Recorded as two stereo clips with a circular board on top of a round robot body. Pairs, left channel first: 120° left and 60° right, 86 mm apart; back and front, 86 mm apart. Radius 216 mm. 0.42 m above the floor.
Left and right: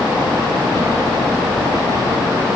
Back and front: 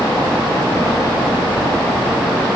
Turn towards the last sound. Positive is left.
No sound to turn to.